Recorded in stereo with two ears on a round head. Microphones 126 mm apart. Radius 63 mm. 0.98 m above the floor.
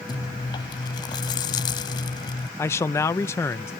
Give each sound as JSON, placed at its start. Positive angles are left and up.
{"t": 0.1, "sound": "chewing", "side_deg": 30}
{"t": 2.6, "sound": "a man speaking", "side_deg": 20}